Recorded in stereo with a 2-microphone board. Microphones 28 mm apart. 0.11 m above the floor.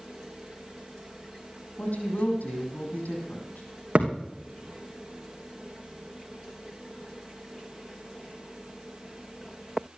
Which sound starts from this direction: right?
A thud, at 4.0 s.